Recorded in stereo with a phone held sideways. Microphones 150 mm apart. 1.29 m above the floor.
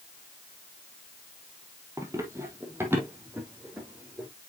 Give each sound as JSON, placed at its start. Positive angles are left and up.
{"t": 2.0, "sound": "running footsteps", "side_deg": -20, "distance_m": 1.9}